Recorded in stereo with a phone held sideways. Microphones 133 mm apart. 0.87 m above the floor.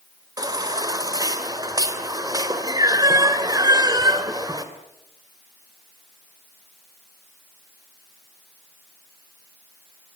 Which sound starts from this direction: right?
A baby crying, at 0.4 s.